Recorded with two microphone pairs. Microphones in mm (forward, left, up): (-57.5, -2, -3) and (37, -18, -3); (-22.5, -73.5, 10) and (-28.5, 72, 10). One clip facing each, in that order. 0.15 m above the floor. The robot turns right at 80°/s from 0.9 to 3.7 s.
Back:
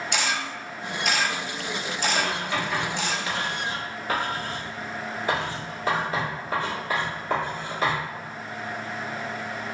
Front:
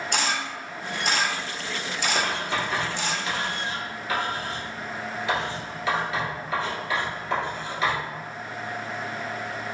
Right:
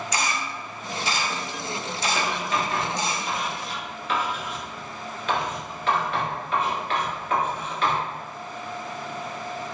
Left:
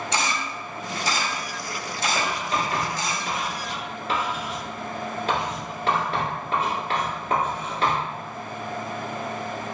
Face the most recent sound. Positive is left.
turn(degrees=135)